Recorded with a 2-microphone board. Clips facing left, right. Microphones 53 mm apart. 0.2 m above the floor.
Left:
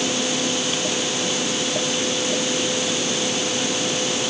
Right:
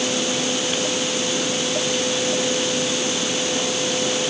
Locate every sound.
Only background noise.